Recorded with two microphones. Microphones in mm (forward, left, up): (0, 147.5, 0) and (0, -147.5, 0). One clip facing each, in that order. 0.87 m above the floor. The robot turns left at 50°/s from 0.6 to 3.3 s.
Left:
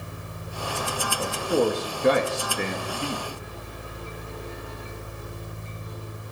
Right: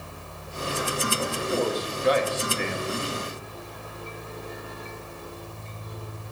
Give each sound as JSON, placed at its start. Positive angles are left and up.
{"t": 1.2, "sound": "a man speaking", "side_deg": 40, "distance_m": 1.4}